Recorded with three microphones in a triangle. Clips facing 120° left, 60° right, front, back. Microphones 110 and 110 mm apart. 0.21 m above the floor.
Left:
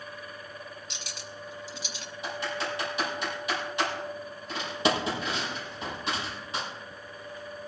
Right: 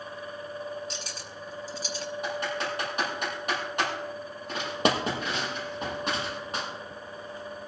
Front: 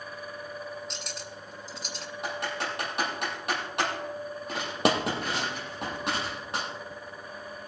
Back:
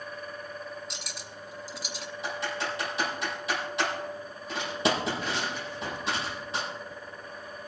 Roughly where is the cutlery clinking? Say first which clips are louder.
Right 3 dB, front 2 dB; right.